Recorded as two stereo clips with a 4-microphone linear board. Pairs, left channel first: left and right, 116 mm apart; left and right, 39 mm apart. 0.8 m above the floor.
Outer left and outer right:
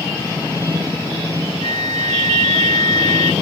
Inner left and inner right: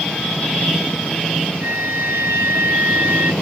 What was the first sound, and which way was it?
A flute, 85° right.